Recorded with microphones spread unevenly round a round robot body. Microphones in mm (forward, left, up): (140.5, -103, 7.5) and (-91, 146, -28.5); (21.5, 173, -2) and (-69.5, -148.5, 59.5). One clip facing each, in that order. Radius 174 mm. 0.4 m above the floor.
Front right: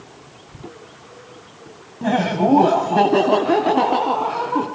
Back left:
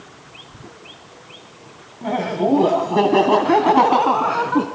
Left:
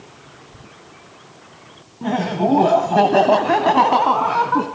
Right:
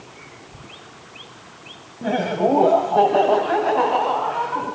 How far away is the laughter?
About 2.5 m.